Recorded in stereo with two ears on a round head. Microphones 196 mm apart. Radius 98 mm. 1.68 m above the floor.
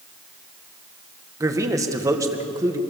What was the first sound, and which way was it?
A man speaking, 15° right (ahead or behind).